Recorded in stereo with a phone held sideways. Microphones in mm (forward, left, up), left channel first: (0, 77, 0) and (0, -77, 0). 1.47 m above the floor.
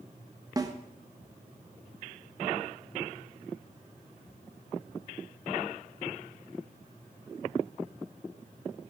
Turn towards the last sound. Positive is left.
turn(degrees=-25)  # may be behind; listen again after turning